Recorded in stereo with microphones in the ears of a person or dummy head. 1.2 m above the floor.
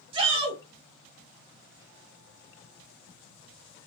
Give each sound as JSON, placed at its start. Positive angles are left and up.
{"t": 0.1, "sound": "a shout", "side_deg": -30, "distance_m": 1.2}